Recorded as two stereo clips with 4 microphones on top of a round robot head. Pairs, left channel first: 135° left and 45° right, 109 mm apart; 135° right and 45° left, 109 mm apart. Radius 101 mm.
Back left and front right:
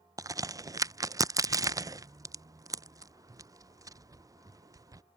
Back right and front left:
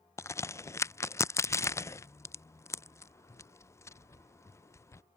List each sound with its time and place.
0.2 s a crack: 85° right